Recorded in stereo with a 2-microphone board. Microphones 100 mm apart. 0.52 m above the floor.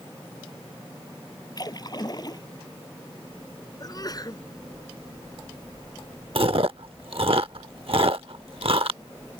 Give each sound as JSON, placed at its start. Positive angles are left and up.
{"t": 1.6, "sound": "a splash", "side_deg": 40}
{"t": 3.8, "sound": "a sneeze", "side_deg": 40}
{"t": 6.3, "sound": "chewing", "side_deg": -65}